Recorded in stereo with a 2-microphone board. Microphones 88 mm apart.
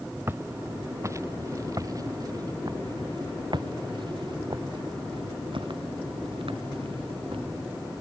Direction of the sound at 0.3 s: 25° right (ahead or behind).